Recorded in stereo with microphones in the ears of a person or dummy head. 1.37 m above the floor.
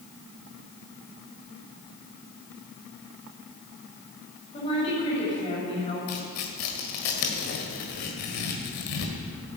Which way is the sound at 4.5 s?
30° left (ahead or behind).